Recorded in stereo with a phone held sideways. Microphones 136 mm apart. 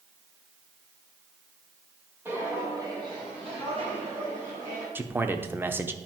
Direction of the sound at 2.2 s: 15° right (ahead or behind).